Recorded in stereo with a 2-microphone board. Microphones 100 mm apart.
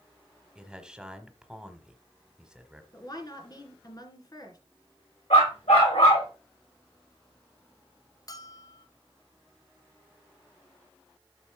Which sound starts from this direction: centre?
A man speaking, at 0.6 s.